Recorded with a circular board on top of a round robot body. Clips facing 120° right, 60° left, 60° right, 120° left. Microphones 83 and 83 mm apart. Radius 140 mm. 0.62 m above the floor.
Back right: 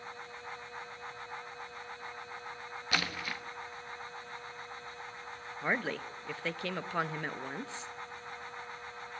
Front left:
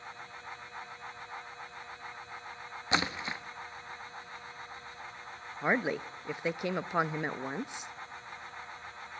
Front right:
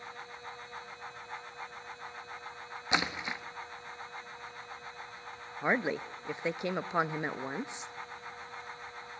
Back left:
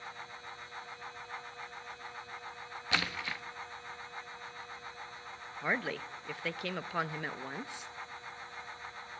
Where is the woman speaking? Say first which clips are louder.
Front left 4 dB, front right 4 dB; 5° right, 0.6 m.